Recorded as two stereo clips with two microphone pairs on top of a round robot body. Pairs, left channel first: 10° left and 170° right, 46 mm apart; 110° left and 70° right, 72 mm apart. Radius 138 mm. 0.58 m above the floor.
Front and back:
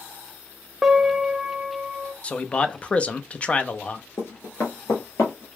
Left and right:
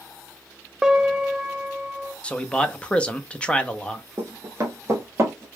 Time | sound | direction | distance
0.8 | a piano | 95° right | 0.8 m
2.2 | a man speaking | 10° left | 0.7 m
4.2 | running footsteps | 15° left | 0.5 m